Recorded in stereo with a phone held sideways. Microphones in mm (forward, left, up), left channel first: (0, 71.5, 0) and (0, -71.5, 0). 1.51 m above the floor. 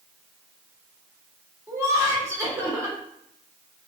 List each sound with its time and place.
1.7 s laughter: 20° right (ahead or behind), 1.8 m